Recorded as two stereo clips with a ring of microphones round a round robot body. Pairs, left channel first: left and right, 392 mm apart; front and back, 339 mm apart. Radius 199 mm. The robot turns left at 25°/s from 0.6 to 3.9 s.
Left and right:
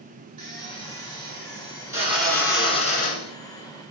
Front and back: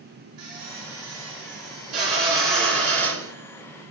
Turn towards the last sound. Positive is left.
turn(degrees=140)